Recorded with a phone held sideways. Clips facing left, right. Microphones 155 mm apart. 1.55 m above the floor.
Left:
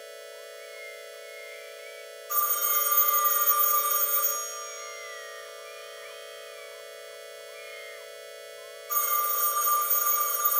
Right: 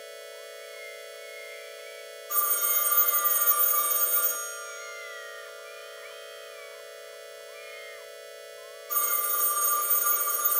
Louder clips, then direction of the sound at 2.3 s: Left 3 dB; 70° right (ahead or behind).